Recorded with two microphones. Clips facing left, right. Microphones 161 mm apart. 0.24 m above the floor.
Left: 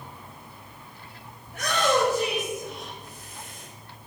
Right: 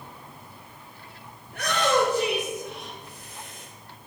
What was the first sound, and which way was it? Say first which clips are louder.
A shout: even; 65° right (ahead or behind).